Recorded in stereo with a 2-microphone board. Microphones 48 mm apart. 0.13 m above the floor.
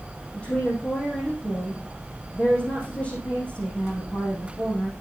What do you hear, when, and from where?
0.3 s a woman speaking: 20° left (ahead or behind), 5 m